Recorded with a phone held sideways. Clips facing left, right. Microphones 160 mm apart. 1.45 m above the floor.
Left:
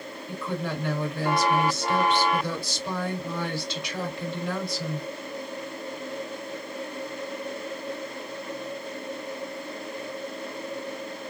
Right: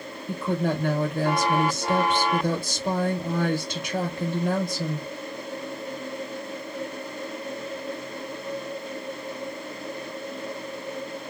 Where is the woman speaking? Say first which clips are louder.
Right 6 dB; 50° right (ahead or behind), 1.3 m.